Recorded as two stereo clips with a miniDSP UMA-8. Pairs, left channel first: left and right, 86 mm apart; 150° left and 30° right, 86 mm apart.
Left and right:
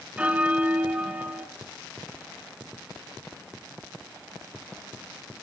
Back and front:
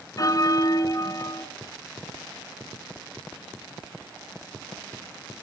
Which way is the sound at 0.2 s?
165° right.